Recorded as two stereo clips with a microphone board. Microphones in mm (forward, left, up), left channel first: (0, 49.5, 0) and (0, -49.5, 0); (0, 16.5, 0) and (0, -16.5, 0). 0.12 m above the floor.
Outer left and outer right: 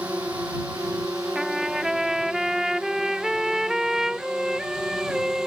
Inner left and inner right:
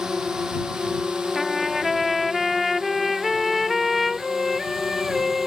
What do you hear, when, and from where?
0.0 s a drone: 15° right (ahead or behind); by 5.5 s 5° right (ahead or behind)
1.4 s a trumpet: 5° right (ahead or behind)